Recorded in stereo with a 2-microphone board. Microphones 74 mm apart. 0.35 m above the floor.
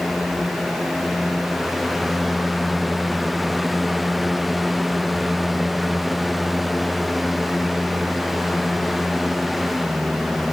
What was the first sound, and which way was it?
Only background noise.